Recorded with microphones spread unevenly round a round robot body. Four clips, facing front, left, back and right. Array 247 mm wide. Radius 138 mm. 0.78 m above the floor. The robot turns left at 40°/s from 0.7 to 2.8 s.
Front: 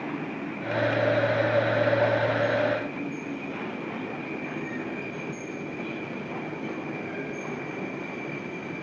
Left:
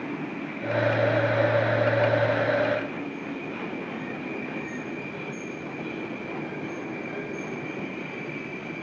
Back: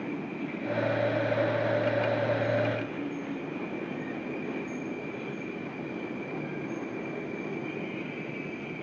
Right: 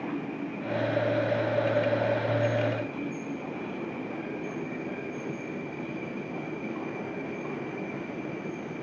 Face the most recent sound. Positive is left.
No sound to turn to.